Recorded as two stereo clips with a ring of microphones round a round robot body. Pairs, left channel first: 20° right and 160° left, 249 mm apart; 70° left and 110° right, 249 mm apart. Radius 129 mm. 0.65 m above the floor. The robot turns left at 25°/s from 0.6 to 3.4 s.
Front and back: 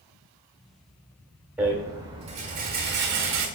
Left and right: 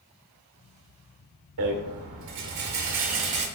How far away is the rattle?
About 0.9 m.